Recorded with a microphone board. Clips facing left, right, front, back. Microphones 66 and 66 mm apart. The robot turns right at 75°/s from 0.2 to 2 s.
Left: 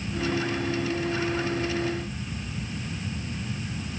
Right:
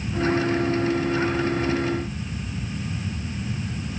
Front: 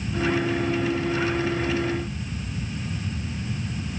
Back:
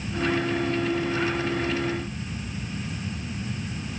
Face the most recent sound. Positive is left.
No sound to turn to.